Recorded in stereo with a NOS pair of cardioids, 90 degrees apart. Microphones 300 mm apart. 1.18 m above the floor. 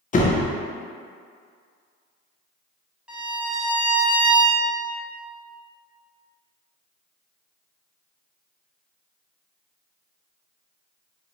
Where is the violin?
5° right, 0.9 m.